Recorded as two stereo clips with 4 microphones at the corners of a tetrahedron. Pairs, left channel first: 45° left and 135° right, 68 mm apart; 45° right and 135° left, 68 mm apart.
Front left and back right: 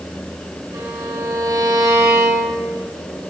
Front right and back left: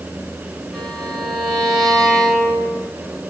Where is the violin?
130° right, 4 m.